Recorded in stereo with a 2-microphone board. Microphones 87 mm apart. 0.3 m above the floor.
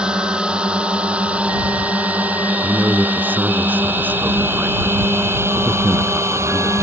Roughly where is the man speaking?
Centre.